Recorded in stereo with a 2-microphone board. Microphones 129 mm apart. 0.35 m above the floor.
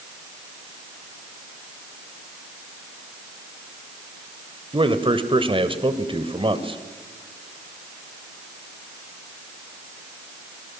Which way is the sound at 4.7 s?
40° right (ahead or behind).